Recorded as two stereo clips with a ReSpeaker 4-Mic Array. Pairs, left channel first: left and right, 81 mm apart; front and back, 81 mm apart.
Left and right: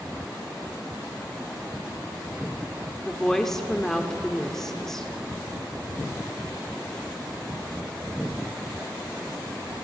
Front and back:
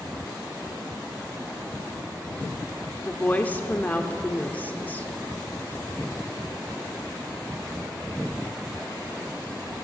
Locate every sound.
3.0 s a woman speaking: 15° left, 0.9 m